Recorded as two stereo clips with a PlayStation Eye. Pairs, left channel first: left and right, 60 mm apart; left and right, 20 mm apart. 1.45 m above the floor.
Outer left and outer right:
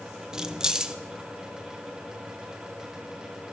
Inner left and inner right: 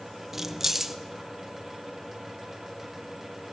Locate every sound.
0.3 s keys jangling: 15° right (ahead or behind), 0.5 m